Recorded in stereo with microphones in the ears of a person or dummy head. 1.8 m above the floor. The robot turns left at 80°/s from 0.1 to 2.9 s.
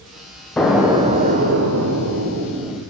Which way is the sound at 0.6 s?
10° left.